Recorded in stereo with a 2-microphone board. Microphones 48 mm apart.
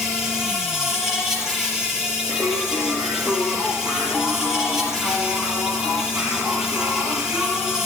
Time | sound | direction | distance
0.0 | an insect | 10° right (ahead or behind) | 5 m
2.3 | singing | 55° right (ahead or behind) | 4 m